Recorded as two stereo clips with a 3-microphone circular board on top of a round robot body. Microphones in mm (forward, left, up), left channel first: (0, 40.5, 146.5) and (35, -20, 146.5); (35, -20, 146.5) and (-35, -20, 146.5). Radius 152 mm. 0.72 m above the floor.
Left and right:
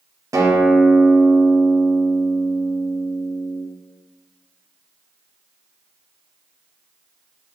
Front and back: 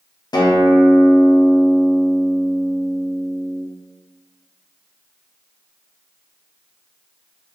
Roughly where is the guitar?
Ahead.